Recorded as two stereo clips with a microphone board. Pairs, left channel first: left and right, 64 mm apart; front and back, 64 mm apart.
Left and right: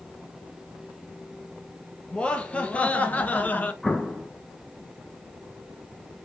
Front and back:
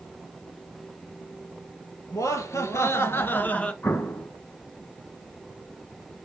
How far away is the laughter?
About 2 m.